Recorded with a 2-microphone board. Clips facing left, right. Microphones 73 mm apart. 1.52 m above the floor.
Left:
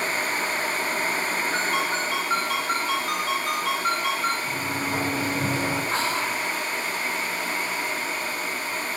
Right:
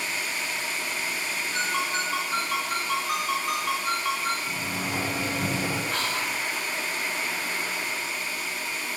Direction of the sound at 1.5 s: 80° left.